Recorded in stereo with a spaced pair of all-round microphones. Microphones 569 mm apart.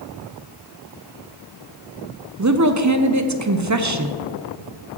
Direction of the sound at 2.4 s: 30° right (ahead or behind).